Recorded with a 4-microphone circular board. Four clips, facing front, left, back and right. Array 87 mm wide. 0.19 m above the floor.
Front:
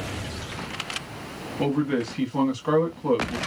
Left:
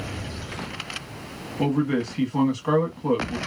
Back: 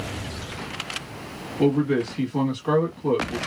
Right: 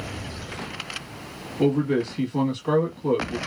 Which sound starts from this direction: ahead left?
A man speaking, at 1.6 s.